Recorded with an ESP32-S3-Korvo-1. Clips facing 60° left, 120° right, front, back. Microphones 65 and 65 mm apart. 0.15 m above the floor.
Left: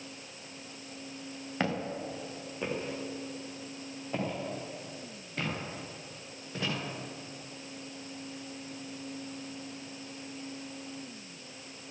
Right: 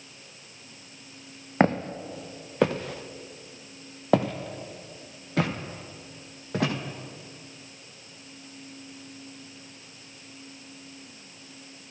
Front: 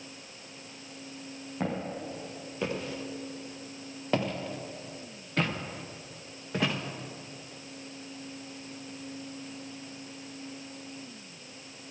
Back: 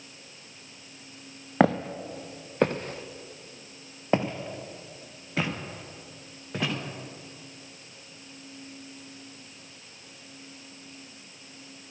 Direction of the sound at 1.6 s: 175° right.